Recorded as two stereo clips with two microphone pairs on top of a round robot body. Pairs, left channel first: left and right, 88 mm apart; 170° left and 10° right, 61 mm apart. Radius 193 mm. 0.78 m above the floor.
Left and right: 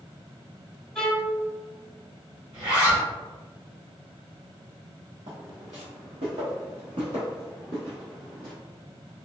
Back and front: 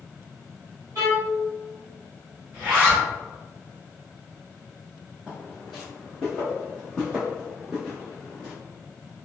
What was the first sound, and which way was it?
A violin, 5° left.